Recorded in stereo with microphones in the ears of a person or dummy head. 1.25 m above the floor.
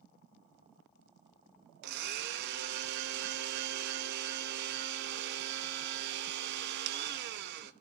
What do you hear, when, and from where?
1.8 s a blender: 60° right (ahead or behind), 0.9 m